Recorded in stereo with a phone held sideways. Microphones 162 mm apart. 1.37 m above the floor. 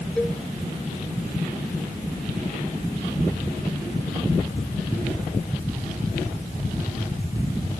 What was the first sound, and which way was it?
A cowbell, 5° left (ahead or behind).